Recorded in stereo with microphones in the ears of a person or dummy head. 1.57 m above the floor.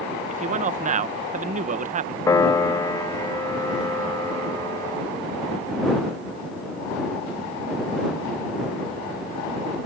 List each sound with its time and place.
0.3 s a man speaking: 40° right (ahead or behind)
2.3 s a piano: 15° left (ahead or behind)